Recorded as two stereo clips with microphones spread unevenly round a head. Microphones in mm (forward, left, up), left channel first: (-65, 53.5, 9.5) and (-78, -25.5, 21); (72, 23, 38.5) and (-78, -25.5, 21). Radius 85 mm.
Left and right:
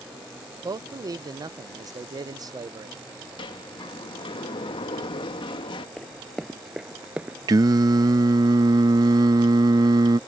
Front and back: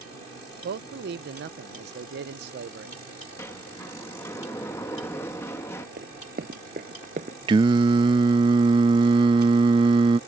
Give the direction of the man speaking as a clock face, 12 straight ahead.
5 o'clock.